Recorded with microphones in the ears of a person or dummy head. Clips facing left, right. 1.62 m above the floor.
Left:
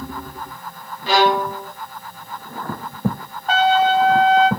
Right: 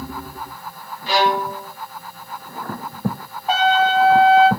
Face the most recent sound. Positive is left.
turn(degrees=-5)  # may be behind; listen again after turning